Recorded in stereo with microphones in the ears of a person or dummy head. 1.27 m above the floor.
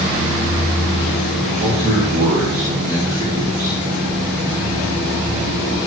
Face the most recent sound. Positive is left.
turn(degrees=-35)  # may be behind; listen again after turning